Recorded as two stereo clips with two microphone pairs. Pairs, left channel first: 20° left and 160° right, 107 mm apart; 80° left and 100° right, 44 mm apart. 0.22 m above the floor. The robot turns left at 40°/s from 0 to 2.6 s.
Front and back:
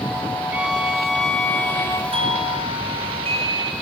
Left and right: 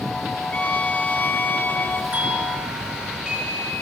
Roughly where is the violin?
Behind left.